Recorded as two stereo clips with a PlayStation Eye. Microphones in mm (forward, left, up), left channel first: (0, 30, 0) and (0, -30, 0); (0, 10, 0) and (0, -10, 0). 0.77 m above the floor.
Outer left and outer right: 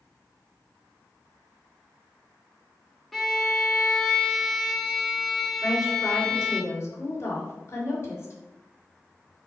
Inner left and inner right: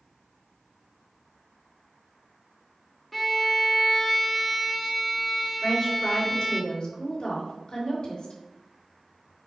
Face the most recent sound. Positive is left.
turn(degrees=45)  # may be behind; listen again after turning